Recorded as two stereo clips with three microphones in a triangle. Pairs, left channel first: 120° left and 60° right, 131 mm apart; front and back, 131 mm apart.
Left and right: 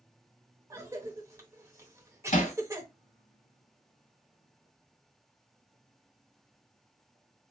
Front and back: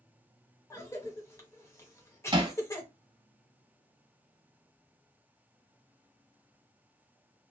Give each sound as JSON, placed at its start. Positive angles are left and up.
{"t": 0.7, "sound": "a cough", "azimuth_deg": -30, "distance_m": 0.9}
{"t": 2.3, "sound": "hammering", "azimuth_deg": 125, "distance_m": 0.8}